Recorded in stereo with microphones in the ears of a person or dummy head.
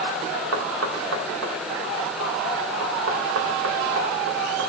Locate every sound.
0.5 s knocking: 75° right (ahead or behind), 2.5 m